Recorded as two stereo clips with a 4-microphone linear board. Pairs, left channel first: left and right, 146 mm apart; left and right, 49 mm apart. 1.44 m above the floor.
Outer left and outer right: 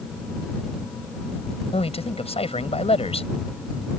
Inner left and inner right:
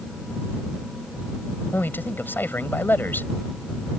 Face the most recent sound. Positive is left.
turn(degrees=45)  # may be behind; listen again after turning